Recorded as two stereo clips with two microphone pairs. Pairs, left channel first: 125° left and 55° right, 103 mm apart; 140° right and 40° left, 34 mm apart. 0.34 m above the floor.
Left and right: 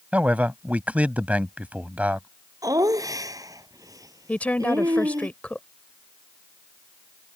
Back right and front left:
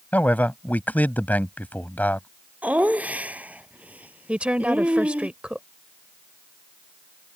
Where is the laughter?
Straight ahead.